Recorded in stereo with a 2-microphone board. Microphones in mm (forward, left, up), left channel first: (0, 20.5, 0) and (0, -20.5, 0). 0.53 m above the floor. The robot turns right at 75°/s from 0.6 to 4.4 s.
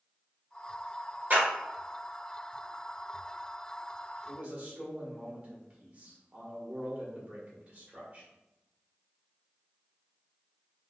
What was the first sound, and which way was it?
A clap, 45° right (ahead or behind).